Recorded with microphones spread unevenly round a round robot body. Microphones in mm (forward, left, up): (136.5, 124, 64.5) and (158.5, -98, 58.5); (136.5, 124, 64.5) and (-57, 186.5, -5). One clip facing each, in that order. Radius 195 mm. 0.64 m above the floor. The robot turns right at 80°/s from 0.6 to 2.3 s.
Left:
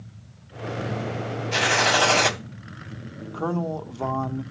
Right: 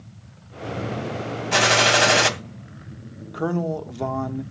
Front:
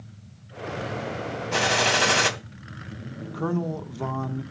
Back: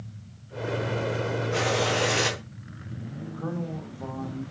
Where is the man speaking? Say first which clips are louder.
Right 3 dB, front 7 dB; 15° right, 2 m.